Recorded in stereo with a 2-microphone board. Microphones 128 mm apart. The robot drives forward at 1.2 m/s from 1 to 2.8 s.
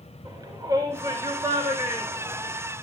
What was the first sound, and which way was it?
A shout, 30° right (ahead or behind).